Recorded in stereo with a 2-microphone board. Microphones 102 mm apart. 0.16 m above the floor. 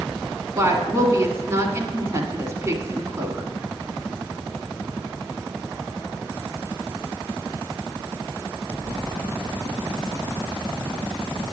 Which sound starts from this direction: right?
A woman speaking, at 0.6 s.